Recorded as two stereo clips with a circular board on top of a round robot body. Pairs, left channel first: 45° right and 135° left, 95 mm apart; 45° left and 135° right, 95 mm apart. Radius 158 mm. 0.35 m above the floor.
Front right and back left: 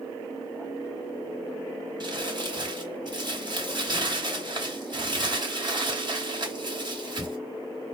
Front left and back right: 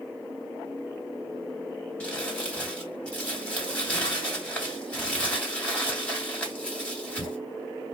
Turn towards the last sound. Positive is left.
turn(degrees=120)